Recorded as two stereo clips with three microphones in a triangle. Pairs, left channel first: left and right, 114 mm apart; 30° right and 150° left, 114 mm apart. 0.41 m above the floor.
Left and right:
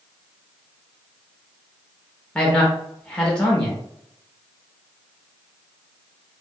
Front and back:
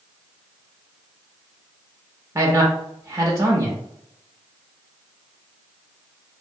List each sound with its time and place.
2.4 s a man speaking: 160° left, 0.8 m